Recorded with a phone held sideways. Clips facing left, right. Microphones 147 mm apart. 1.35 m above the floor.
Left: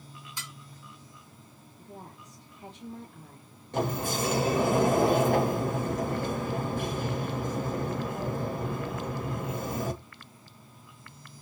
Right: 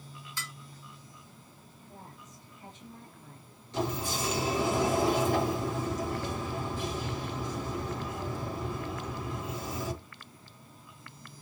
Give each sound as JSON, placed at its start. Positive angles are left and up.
{"t": 0.4, "sound": "dishes clattering", "side_deg": 15, "distance_m": 2.0}
{"t": 1.8, "sound": "a woman speaking", "side_deg": 80, "distance_m": 2.0}
{"t": 3.7, "sound": "a sliding door", "side_deg": 55, "distance_m": 1.4}